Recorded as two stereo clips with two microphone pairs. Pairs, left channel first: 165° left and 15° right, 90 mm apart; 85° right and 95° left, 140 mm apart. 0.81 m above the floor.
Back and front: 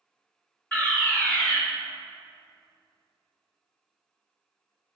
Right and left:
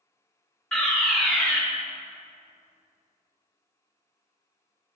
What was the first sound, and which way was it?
A fire alarm, 165° right.